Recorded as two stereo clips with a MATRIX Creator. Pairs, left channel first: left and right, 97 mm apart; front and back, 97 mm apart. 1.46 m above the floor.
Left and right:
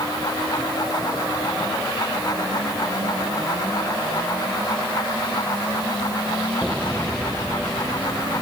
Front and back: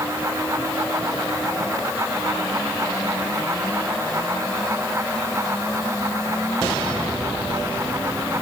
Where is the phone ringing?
No phone ringing in this recording.